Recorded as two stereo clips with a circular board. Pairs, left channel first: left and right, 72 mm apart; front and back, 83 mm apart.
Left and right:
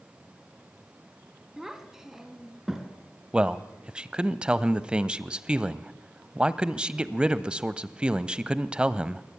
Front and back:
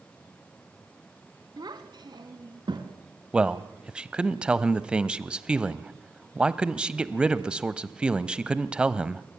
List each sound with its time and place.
1.6 s a child speaking: 175° right, 1.8 m
3.3 s a man speaking: 130° right, 1.0 m